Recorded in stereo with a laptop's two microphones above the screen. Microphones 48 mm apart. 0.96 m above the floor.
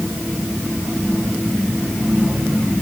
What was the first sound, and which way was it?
Only background noise.